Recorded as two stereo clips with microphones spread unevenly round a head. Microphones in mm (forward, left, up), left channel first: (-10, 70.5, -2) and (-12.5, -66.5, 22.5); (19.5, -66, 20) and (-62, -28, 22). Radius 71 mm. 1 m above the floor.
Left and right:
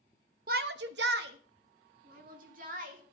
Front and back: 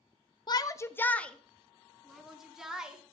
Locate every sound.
0.5 s a shout: 60° right, 1.0 m; by 3.1 s 125° right, 4 m